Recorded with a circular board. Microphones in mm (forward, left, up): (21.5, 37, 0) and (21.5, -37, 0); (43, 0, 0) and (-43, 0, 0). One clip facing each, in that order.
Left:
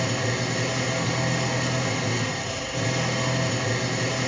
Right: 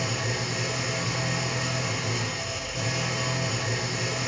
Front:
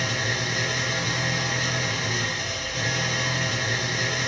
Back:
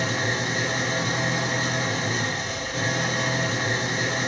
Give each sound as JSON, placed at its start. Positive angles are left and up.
{"t": 0.0, "sound": "an engine running", "azimuth_deg": 120, "distance_m": 5.0}